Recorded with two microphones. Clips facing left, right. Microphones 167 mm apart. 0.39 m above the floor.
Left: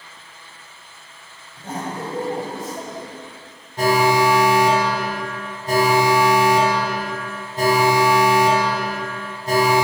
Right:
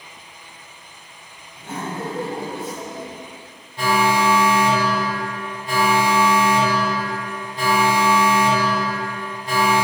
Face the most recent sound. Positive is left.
turn(degrees=40)  # may be behind; listen again after turning